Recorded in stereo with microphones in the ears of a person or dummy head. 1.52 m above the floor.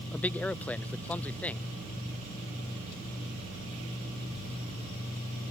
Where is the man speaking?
5° left (ahead or behind).